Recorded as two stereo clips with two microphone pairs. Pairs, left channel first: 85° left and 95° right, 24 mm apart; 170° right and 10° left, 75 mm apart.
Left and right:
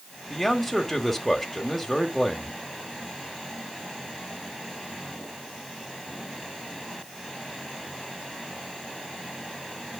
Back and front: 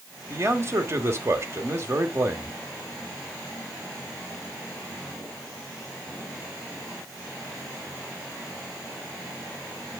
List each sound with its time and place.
0.3 s a man speaking: 10° left, 1.3 m